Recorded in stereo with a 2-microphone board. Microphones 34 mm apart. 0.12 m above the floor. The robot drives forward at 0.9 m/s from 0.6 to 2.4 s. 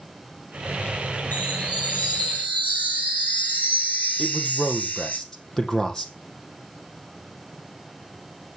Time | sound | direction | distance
1.3 | a chime | 65° left (ahead or behind) | 3 m
4.2 | a man speaking | 15° left (ahead or behind) | 4.5 m